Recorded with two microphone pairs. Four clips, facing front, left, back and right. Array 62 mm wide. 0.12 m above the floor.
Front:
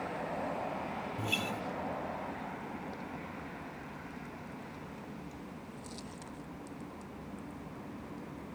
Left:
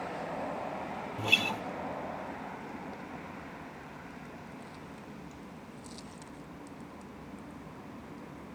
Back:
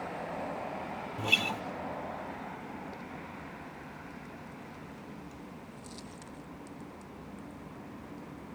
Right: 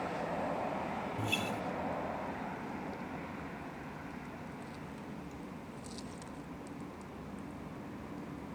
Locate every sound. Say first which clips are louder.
1.2 s a guitar: left 8 dB, back 6 dB; 135° left, 0.6 m